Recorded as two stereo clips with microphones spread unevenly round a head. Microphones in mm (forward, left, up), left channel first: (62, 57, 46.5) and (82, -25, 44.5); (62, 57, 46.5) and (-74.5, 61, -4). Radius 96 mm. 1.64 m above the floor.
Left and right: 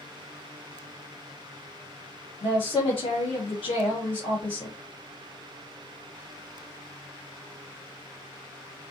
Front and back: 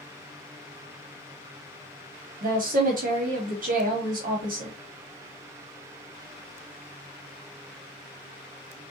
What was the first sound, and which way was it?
A woman speaking, 145° left.